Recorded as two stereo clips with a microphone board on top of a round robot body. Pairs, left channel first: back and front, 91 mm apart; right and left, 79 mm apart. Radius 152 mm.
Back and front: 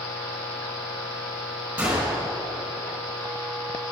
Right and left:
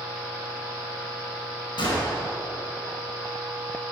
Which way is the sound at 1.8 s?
75° right.